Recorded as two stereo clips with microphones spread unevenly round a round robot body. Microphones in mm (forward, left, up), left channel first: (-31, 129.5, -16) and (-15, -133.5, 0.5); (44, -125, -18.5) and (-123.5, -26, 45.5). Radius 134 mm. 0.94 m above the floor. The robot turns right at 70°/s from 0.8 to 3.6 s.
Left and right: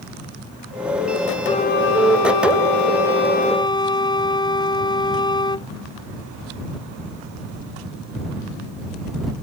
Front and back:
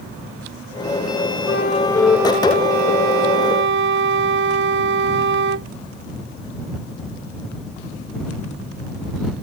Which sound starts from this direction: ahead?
A flute, at 1.5 s.